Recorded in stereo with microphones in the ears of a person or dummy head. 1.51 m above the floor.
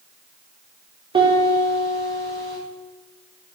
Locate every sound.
1.1 s a piano: 30° right (ahead or behind), 5.5 m